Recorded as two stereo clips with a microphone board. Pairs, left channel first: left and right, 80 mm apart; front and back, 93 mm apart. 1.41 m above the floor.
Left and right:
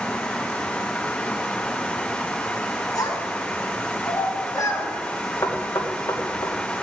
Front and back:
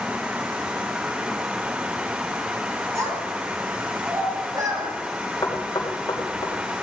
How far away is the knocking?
About 3 m.